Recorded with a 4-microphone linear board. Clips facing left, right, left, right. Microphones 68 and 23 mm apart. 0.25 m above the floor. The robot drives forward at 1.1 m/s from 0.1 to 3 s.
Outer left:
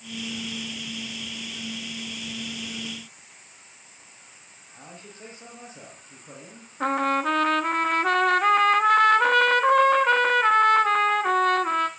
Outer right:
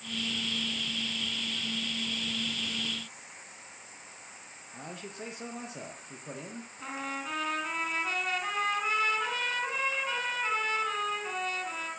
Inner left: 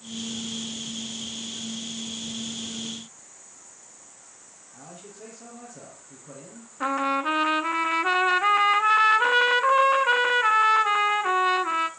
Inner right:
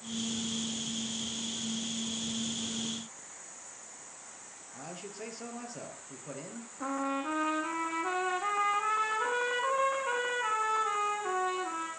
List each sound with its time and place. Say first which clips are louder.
4.7 s a man speaking: outer right 3 dB, inner right 2 dB; 70° right (ahead or behind), 6.5 m
6.8 s a trumpet: outer left 15 dB, inner left 9 dB; 65° left (ahead or behind), 1.3 m